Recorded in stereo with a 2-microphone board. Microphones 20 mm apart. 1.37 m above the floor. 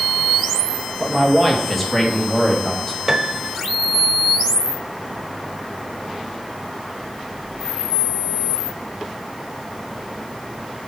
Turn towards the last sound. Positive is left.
turn(degrees=-15)  # may be behind; listen again after turning